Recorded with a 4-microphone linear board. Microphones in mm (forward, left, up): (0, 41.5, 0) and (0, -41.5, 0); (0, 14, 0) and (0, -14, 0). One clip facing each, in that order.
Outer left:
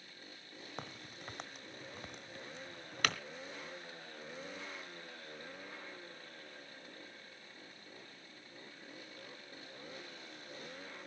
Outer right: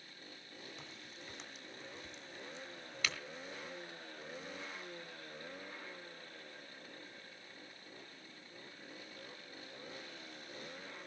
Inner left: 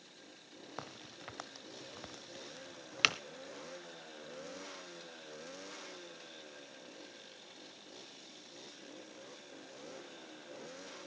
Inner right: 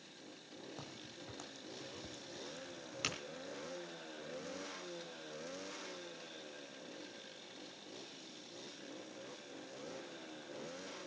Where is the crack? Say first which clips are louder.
Outer left 5 dB, inner left 3 dB; 55° left (ahead or behind), 0.9 m.